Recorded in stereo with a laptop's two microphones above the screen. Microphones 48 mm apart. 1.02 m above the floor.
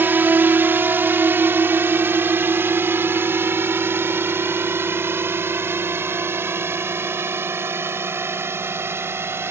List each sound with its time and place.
0.0 s a drone: 45° right (ahead or behind); by 9.5 s 55° right (ahead or behind)